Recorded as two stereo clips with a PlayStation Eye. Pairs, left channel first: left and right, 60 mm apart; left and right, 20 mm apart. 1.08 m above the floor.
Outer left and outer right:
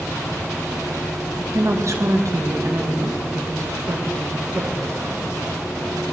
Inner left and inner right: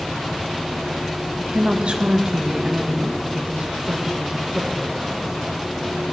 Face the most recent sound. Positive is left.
turn(degrees=-55)  # may be behind; listen again after turning